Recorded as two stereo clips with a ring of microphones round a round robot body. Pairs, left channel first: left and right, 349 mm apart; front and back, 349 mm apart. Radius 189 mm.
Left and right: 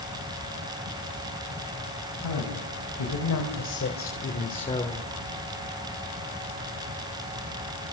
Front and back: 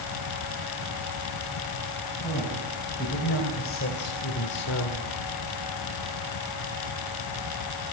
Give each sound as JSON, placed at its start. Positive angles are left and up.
{"t": 2.2, "sound": "a woman speaking", "azimuth_deg": 70, "distance_m": 3.5}